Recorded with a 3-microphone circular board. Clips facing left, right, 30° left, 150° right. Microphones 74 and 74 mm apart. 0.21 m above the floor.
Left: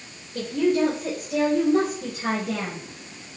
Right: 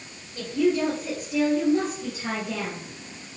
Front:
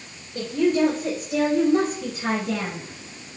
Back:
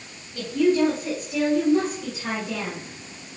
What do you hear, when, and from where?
0.3 s a woman speaking: 75° left, 3.5 m; by 2.9 s 60° left, 2.5 m